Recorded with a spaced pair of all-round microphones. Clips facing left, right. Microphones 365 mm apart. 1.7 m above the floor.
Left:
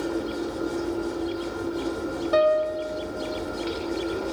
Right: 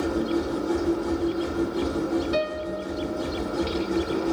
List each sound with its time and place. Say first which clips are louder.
0.0 s a machine running: right 3 dB; 70° right (ahead or behind), 1.2 m
2.3 s a piano: left 6 dB; 60° left (ahead or behind), 1.2 m